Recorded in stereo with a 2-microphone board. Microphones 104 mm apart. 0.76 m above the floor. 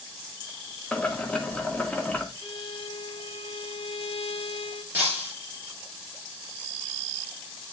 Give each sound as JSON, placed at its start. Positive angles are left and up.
{"t": 0.9, "sound": "boiling", "side_deg": 10, "distance_m": 1.5}
{"t": 2.4, "sound": "a violin", "side_deg": 65, "distance_m": 2.5}
{"t": 4.9, "sound": "breaking glass", "side_deg": -25, "distance_m": 6.0}